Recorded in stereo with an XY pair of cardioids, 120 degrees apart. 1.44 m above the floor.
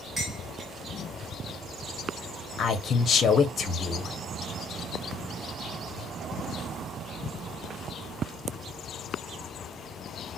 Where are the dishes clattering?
20° right, 1.7 m.